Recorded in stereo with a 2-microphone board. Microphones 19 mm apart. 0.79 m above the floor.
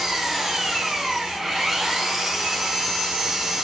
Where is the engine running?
20° right (ahead or behind), 0.8 m.